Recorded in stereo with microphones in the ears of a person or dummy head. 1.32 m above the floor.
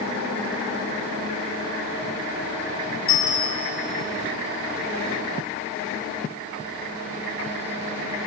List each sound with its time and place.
3.1 s a bicycle bell: 35° left (ahead or behind), 3.5 m